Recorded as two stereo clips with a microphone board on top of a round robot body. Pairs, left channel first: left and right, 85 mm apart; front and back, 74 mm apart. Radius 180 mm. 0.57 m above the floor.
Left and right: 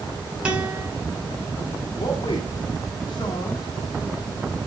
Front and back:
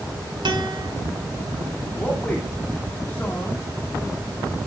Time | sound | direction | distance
0.5 | a guitar | 170° right | 2.0 m
2.0 | a man speaking | 70° left | 2 m